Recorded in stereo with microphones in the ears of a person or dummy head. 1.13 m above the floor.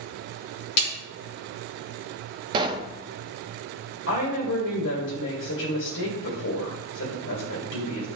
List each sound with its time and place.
0.8 s a snare drum: 60° left (ahead or behind), 1.6 m
2.5 s a pop: 25° right (ahead or behind), 0.5 m
4.1 s a woman speaking: 80° left, 1.7 m